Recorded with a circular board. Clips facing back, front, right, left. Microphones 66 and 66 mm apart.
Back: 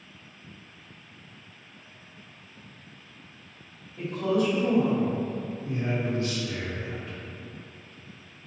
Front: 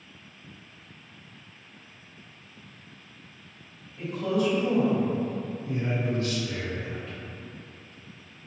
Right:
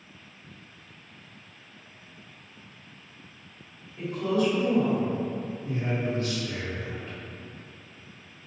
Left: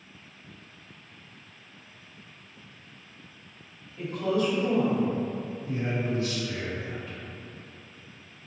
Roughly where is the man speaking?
Behind right.